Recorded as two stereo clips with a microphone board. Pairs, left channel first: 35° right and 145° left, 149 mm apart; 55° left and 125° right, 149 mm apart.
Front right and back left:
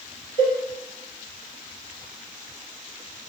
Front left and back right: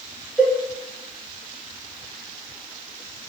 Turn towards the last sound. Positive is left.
turn(degrees=-35)